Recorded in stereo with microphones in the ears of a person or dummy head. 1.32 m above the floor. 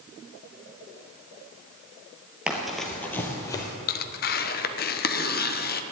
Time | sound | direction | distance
2.5 | running footsteps | 5° right (ahead or behind) | 1.8 m
3.9 | tearing paper | 45° left (ahead or behind) | 0.8 m